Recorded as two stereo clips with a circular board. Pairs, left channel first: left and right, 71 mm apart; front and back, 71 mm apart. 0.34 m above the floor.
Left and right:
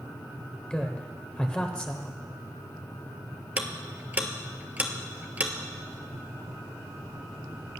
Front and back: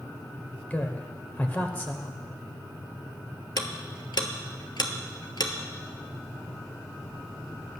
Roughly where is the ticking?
Ahead.